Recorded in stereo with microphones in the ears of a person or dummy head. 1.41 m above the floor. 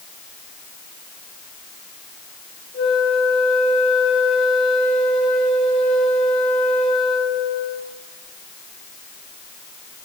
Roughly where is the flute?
Left.